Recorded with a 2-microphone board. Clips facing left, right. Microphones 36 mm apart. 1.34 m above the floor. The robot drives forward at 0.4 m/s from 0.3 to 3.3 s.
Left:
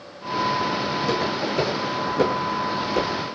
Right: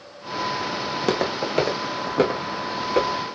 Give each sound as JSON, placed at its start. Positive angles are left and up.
{"t": 0.9, "sound": "footsteps", "side_deg": -55, "distance_m": 2.5}